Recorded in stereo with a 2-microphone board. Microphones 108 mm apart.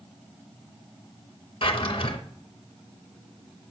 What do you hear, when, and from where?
1.6 s a drawer: 55° left (ahead or behind), 0.8 m